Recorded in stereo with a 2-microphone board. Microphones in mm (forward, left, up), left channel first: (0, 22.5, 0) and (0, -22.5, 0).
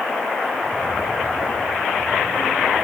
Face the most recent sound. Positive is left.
turn(degrees=-55)  # may be behind; listen again after turning